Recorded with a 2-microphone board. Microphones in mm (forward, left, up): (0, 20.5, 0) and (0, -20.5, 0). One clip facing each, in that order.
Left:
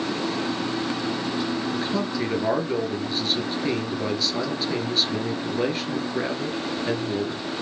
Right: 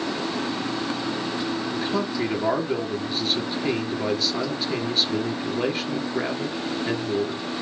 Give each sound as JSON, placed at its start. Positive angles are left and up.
{"t": 1.7, "sound": "a man speaking", "side_deg": -5, "distance_m": 2.5}